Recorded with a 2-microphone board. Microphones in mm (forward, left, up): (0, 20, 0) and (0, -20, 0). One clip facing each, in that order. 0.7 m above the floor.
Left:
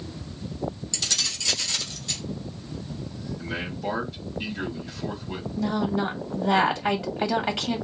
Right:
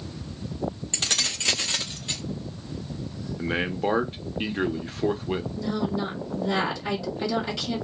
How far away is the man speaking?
About 0.9 m.